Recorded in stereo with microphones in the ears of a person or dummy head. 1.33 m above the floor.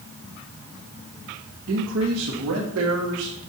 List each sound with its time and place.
1.7 s a man speaking: 65° right (ahead or behind), 1.4 m; by 3.4 s 80° right, 2 m